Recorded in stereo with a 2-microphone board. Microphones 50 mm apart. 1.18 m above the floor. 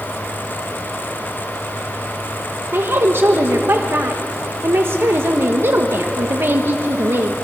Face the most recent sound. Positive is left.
turn(degrees=-50)  # may be behind; listen again after turning